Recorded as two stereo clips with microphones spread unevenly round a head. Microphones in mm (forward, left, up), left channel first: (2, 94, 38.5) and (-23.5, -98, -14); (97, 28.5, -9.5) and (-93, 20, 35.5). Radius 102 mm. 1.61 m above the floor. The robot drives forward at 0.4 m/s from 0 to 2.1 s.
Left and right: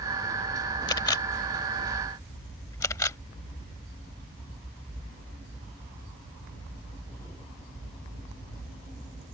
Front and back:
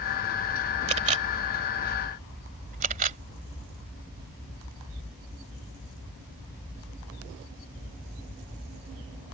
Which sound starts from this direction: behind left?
A camera shutter, at 0.9 s.